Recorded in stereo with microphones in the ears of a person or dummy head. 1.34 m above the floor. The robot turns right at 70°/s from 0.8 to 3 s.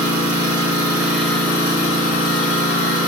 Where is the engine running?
35° right, 1.4 m; by 3.1 s 120° left, 1.4 m.